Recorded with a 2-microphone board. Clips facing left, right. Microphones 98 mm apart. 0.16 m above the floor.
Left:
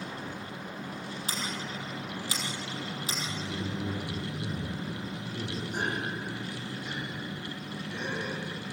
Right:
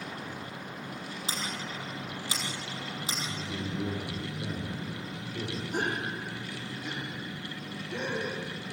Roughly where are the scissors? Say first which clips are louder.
Even; right.